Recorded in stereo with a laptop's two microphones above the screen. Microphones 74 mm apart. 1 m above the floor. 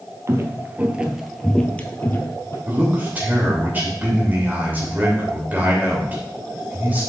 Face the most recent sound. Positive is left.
turn(degrees=-25)  # may be behind; listen again after turning